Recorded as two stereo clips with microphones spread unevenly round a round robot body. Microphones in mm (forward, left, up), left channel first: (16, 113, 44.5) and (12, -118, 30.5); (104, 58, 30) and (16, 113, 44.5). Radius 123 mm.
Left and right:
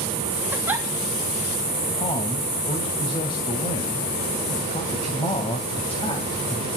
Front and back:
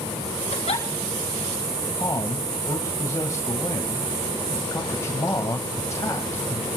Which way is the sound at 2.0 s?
20° left.